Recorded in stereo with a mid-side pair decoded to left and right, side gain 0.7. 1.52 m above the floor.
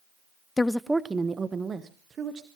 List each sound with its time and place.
0.6 s a woman speaking: 15° left, 0.5 m; by 2.5 s 35° right, 2 m